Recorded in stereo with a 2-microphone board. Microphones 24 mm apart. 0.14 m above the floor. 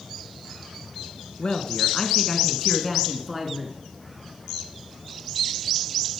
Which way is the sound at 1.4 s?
40° left (ahead or behind).